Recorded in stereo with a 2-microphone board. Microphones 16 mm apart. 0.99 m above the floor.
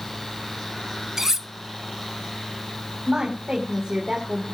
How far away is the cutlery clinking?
About 0.8 m.